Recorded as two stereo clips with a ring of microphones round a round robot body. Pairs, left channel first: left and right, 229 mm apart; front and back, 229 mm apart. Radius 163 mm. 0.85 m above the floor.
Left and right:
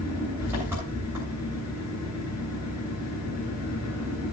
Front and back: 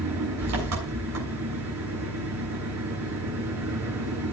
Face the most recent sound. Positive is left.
turn(degrees=-175)